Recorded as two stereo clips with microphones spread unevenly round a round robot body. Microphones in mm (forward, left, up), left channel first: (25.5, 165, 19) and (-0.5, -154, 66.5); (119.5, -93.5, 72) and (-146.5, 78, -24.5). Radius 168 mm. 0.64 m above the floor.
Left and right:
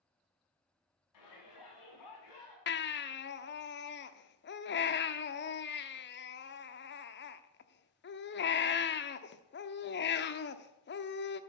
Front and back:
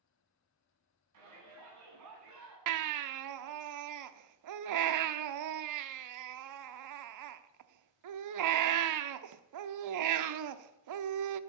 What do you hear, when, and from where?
1.1 s a shout: 115° left, 7 m; by 2.6 s 110° left, 8 m
2.7 s a baby crying: 140° left, 0.8 m